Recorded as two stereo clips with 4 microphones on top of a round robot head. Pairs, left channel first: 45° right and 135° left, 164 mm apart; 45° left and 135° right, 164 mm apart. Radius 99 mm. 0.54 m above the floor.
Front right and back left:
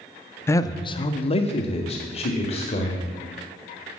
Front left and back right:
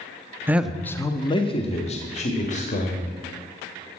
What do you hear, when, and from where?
0.5 s a man speaking: 85° right, 0.6 m; by 3.1 s 5° left, 2 m